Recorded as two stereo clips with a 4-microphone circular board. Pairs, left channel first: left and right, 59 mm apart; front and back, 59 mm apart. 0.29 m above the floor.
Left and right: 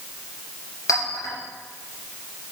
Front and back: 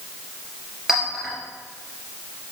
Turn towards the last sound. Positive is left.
turn(degrees=100)